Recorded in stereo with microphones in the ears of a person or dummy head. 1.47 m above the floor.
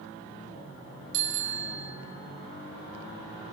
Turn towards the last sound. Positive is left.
turn(degrees=-65)  # may be behind; listen again after turning